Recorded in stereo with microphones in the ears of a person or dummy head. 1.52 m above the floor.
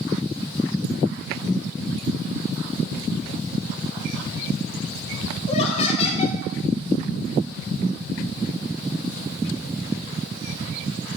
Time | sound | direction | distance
5.5 | laughter | 35° left (ahead or behind) | 1.7 m